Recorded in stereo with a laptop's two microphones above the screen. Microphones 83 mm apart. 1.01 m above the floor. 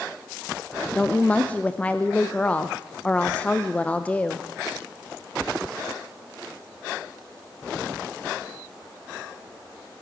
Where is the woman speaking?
15° left (ahead or behind), 0.6 m.